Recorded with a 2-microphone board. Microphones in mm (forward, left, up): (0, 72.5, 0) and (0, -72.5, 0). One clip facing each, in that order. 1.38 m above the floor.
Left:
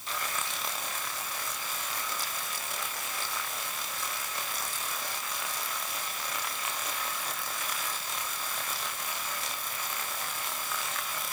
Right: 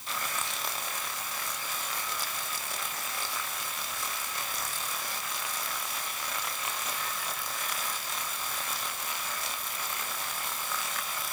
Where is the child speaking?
No child speaking in this recording.